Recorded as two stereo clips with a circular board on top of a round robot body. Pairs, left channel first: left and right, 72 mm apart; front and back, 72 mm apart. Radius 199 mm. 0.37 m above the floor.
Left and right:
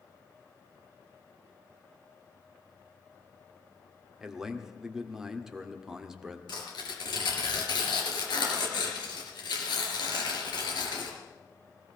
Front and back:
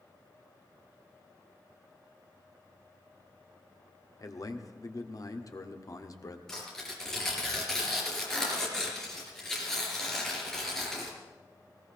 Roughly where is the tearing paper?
Left.